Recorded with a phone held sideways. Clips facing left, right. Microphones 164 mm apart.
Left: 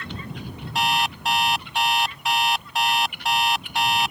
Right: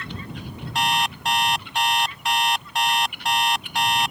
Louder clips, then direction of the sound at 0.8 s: Even; centre (ahead or behind).